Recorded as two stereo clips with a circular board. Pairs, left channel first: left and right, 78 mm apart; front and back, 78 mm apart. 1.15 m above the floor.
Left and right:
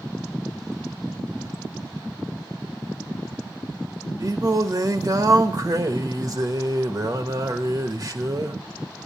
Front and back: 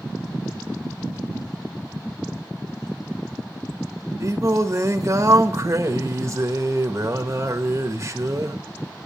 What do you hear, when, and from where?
4.2 s singing: 130° right, 1.2 m